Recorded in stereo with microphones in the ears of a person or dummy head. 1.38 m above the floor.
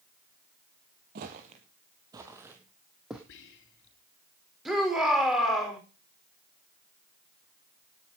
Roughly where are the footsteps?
Right.